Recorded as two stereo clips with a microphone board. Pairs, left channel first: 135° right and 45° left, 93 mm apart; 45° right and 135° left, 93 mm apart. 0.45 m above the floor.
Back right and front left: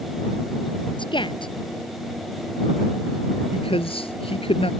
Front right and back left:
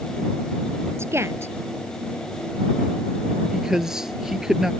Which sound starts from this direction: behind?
A woman speaking, at 1.0 s.